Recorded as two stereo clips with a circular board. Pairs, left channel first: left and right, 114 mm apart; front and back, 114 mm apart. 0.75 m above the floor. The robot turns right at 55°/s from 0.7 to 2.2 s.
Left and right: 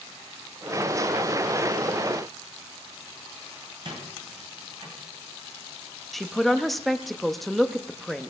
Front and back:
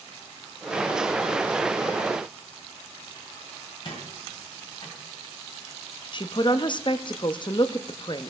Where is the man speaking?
Straight ahead, 0.6 m.